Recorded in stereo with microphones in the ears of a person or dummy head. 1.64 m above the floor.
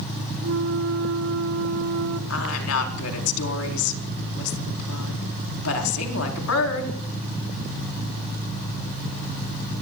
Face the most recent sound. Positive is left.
turn(degrees=85)